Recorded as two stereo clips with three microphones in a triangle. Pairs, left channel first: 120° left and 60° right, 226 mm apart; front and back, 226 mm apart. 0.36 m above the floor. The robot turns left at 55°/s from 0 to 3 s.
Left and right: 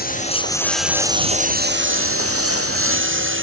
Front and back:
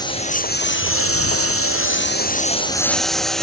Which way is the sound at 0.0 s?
75° left.